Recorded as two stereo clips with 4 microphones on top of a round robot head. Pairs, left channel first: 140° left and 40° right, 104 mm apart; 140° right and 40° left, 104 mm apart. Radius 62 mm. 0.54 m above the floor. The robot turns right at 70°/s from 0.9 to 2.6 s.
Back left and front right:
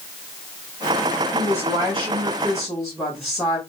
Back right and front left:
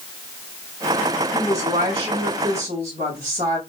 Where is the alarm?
I don't hear an alarm.